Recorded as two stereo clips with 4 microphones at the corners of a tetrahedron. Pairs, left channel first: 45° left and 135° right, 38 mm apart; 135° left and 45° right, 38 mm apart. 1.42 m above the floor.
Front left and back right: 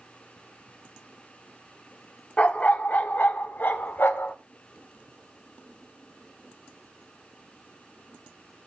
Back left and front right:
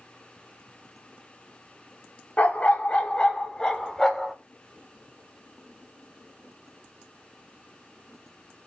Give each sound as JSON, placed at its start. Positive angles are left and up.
{"t": 2.4, "sound": "a dog barking", "azimuth_deg": 95, "distance_m": 1.6}